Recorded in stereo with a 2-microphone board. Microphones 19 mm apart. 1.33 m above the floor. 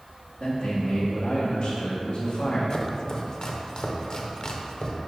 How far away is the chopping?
About 0.7 m.